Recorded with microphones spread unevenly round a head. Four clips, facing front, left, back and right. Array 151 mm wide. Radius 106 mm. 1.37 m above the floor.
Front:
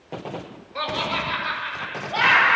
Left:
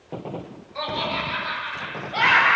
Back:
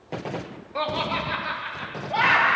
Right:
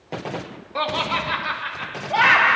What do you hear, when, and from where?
0.8 s laughter: 110° right, 1.2 m; by 2.6 s 125° right, 4 m